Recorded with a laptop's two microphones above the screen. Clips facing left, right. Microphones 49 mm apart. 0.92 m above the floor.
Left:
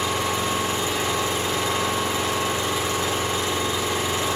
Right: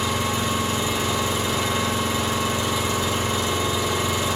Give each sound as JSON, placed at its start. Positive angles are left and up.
{"t": 0.0, "sound": "an engine running", "side_deg": 45, "distance_m": 2.5}